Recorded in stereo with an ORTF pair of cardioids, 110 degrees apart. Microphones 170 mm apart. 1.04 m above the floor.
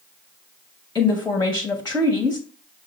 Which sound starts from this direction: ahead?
A woman speaking, at 0.9 s.